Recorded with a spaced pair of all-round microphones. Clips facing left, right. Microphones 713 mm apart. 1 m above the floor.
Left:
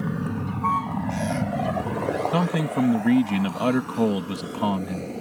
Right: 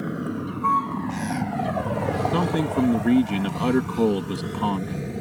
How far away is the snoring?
I don't hear snoring.